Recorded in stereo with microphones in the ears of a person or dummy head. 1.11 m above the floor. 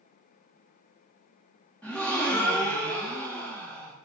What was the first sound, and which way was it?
A gasp, 5° left (ahead or behind).